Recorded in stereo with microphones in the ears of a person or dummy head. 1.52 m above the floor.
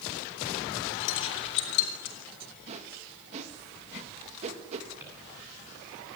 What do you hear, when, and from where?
1.0 s keys jangling: 70° left (ahead or behind), 5 m
2.7 s a whoosh: 40° right (ahead or behind), 2 m
5.0 s a drawer: 10° right (ahead or behind), 9.5 m